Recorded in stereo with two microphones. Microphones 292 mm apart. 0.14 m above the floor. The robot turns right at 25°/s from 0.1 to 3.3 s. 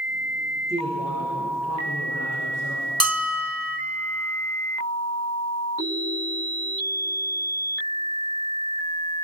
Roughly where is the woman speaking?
Ahead.